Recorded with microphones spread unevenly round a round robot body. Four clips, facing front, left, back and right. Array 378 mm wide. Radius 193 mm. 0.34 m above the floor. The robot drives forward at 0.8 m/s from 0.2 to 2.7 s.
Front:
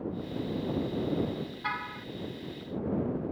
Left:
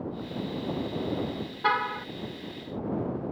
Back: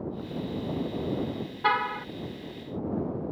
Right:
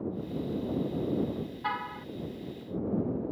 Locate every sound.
1.6 s a car horn: 135° left